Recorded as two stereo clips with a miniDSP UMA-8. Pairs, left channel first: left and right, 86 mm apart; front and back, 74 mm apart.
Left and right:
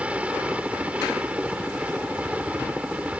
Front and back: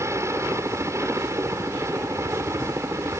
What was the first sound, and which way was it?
A helicopter, 160° right.